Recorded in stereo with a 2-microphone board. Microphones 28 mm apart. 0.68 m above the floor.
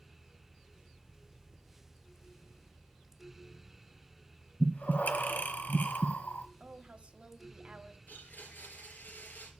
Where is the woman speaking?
40° right (ahead or behind), 1.2 m.